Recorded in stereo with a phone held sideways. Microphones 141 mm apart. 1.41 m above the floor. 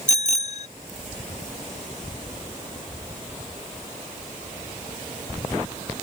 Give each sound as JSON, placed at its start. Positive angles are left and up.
{"t": 0.1, "sound": "a bicycle bell", "side_deg": 60}